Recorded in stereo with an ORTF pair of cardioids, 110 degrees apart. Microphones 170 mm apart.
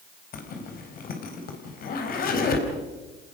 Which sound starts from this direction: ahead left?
A zipper, at 0.3 s.